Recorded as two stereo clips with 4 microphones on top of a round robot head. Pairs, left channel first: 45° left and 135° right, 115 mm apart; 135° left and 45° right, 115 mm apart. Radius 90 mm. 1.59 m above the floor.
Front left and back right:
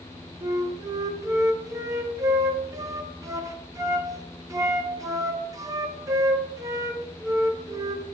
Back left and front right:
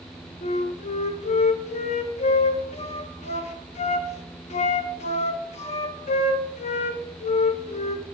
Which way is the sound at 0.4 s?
160° left.